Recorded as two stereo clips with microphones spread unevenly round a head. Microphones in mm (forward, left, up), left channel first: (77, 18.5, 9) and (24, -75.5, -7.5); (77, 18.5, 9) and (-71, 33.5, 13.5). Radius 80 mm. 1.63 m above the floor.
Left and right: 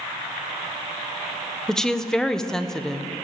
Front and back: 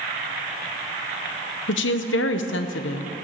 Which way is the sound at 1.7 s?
20° right.